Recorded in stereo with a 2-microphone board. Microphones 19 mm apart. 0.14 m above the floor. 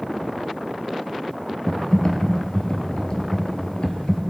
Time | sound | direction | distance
1.7 | typing on a keyboard | 55° left (ahead or behind) | 1.0 m